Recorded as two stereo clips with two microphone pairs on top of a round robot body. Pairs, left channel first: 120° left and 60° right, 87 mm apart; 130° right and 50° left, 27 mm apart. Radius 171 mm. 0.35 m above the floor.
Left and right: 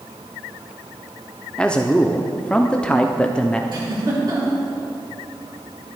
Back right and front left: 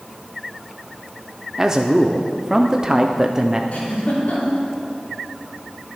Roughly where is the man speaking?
Ahead left.